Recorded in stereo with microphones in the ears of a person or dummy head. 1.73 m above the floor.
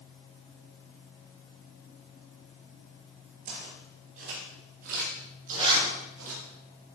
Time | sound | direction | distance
3.5 | footsteps | 50° right (ahead or behind) | 7 m
5.5 | a zipper | 25° right (ahead or behind) | 7 m